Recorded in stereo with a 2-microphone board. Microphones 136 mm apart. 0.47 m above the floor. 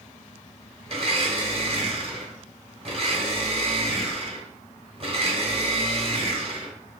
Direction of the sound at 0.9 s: 40° right (ahead or behind).